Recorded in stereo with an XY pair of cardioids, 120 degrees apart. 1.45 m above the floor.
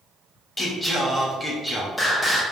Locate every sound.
0.6 s singing: 15° left, 2.5 m